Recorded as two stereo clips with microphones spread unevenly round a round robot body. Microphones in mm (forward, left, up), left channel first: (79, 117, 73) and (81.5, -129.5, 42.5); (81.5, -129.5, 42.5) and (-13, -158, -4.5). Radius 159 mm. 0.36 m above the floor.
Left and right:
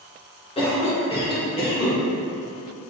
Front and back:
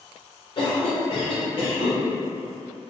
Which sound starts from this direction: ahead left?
A cough, at 0.6 s.